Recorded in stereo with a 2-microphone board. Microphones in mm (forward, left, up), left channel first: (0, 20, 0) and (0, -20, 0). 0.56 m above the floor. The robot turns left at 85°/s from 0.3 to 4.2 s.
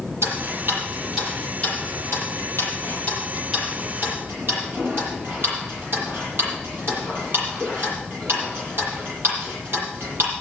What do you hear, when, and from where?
0.2 s ticking: 90° right, 9 m; by 10.3 s 60° right (ahead or behind), 9 m